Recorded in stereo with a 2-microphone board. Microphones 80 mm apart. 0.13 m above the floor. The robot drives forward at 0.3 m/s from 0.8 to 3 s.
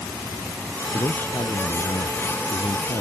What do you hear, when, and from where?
0.9 s a man speaking: 55° left (ahead or behind); by 3.0 s 60° left (ahead or behind)